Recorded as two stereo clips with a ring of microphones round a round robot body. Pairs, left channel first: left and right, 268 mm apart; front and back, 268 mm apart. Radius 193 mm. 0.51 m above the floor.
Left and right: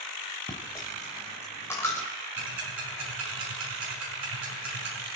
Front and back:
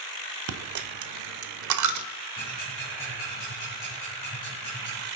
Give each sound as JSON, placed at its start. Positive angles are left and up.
{"t": 0.5, "sound": "a dropped coin", "azimuth_deg": 170, "distance_m": 0.9}
{"t": 2.4, "sound": "ticking", "azimuth_deg": -75, "distance_m": 6.5}